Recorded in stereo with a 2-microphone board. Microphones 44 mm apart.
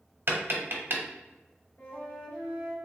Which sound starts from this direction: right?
Tapping, at 0.3 s.